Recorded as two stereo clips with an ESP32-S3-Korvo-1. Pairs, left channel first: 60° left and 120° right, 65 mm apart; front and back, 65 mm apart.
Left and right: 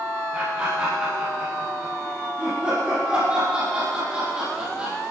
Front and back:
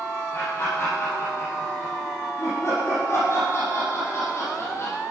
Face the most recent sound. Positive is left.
turn(degrees=-45)